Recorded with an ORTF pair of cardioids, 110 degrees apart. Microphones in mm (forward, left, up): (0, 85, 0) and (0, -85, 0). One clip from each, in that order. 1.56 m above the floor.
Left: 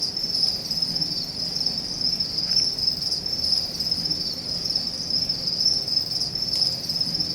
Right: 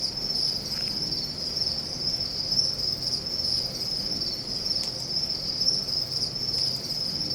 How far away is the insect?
About 9 m.